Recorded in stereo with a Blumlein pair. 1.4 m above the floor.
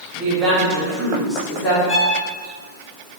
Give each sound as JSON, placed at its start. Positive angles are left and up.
{"t": 0.1, "sound": "a woman speaking", "azimuth_deg": -30, "distance_m": 1.1}
{"t": 1.9, "sound": "a violin", "azimuth_deg": 25, "distance_m": 0.6}